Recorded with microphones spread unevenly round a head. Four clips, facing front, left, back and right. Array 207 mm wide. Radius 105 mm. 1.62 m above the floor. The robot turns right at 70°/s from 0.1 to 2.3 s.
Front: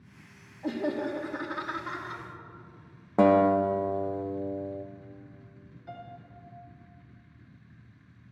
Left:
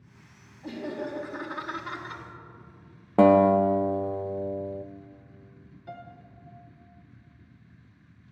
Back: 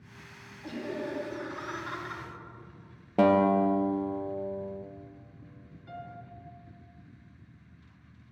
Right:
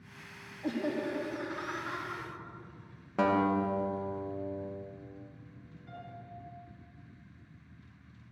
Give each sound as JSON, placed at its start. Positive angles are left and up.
{"t": 0.6, "sound": "laughter", "azimuth_deg": -25, "distance_m": 3.0}
{"t": 3.2, "sound": "a guitar", "azimuth_deg": 85, "distance_m": 0.9}
{"t": 5.9, "sound": "a piano", "azimuth_deg": 80, "distance_m": 2.0}